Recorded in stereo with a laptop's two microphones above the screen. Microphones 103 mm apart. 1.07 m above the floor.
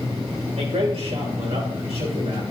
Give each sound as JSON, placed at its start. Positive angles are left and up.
{"t": 0.6, "sound": "a man speaking", "side_deg": -85, "distance_m": 4.5}